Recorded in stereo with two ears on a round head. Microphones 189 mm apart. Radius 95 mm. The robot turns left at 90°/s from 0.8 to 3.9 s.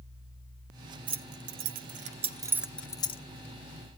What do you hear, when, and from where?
1.1 s keys jangling: 20° right (ahead or behind), 0.5 m; by 3.2 s 30° left (ahead or behind), 0.5 m